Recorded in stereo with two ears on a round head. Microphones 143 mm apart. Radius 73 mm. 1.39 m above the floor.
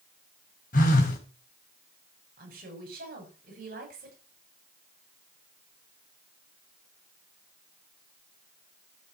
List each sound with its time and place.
0.7 s a phone buzzing: 60° left (ahead or behind), 4 m
2.4 s a woman speaking: 65° right (ahead or behind), 7.5 m